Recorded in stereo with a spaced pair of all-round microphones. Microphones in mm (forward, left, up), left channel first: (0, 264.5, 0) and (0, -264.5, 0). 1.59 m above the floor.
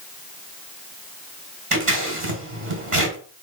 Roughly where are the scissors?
Right.